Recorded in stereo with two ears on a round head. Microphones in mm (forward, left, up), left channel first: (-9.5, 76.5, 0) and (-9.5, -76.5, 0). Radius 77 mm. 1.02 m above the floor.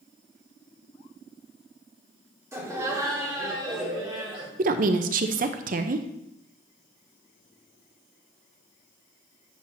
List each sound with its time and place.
2.5 s laughter: 15° right (ahead or behind), 2.5 m; by 4.5 s 30° right (ahead or behind), 3.5 m
4.6 s a woman speaking: 50° right (ahead or behind), 0.6 m